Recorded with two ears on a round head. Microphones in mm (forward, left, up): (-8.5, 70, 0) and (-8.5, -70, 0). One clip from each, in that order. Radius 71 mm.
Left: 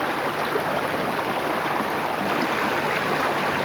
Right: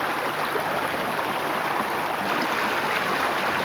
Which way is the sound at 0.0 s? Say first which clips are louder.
Left 1 dB; 30° right (ahead or behind).